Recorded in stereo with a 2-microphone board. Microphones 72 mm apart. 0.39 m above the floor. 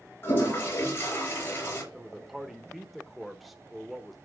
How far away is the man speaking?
About 0.8 m.